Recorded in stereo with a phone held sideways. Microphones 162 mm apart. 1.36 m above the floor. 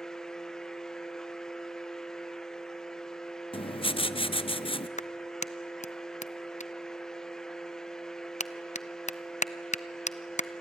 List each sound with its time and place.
0.0 s a fan: 5° left (ahead or behind), 0.9 m
3.5 s writing: 35° left (ahead or behind), 0.6 m
5.0 s a clap: 45° left (ahead or behind), 0.6 m